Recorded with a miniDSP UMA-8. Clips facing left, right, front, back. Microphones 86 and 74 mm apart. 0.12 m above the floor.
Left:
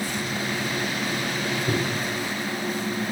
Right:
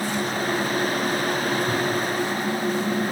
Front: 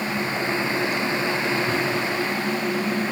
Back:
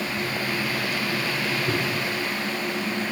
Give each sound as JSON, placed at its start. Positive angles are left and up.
{"t": 1.7, "sound": "a microwave", "azimuth_deg": 110, "distance_m": 3.5}